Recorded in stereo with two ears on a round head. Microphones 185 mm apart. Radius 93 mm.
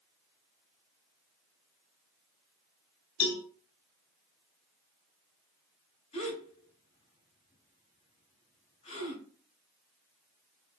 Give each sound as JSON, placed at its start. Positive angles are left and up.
{"t": 3.2, "sound": "a cowbell", "side_deg": 70, "distance_m": 3.0}
{"t": 6.1, "sound": "a gasp", "side_deg": 30, "distance_m": 6.0}